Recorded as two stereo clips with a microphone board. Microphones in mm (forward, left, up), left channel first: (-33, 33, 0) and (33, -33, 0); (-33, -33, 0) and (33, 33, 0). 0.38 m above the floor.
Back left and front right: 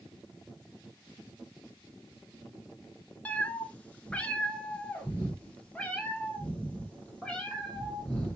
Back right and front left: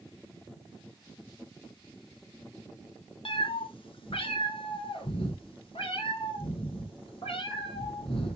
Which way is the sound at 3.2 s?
150° right.